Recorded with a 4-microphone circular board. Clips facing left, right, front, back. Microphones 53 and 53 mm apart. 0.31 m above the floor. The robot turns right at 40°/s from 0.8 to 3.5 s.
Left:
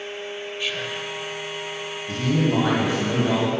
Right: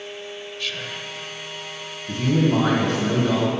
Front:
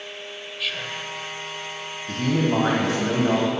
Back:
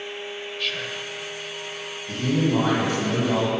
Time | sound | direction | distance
0.6 | whispering | 80° left | 0.9 m
2.1 | a man speaking | 25° right | 2 m